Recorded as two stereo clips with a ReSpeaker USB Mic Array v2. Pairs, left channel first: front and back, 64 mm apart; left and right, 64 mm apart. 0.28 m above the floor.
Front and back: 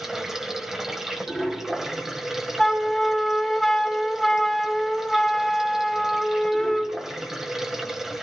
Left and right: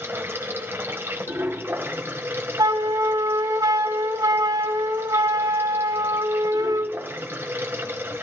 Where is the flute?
85° right, 0.6 m.